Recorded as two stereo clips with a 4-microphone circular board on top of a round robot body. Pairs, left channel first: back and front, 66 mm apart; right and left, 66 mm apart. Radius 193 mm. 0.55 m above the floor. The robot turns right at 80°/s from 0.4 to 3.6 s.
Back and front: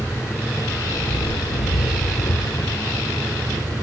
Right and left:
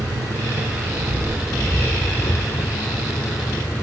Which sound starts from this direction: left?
An engine running, at 0.0 s.